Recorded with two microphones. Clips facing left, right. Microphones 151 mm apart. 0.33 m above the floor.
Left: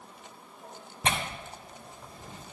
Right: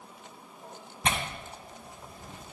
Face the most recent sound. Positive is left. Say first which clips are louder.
# even
turn(degrees=30)  # may be behind; listen again after turning